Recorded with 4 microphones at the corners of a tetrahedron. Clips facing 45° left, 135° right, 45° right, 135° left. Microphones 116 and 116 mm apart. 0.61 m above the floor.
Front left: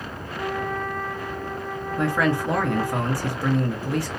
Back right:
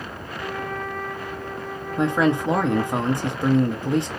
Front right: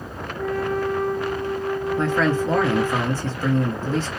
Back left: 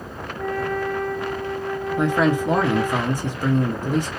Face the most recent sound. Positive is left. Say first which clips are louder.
# back right 3 dB, back left 3 dB
turn(degrees=-170)